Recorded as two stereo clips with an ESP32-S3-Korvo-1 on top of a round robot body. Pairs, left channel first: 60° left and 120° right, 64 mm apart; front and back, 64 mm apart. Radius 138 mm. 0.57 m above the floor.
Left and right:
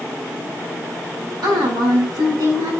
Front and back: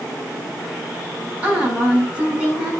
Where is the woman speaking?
110° right, 5.5 m.